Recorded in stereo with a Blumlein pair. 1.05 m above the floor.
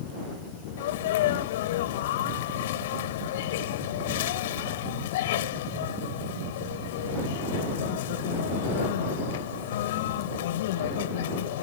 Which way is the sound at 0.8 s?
55° left.